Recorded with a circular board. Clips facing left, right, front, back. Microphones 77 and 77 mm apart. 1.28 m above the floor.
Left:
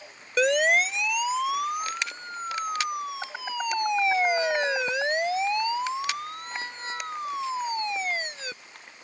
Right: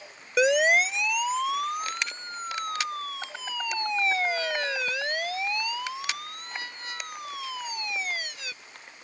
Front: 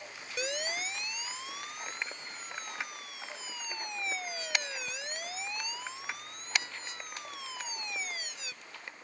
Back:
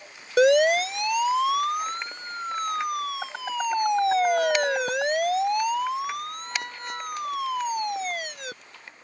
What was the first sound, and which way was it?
A siren, 175° right.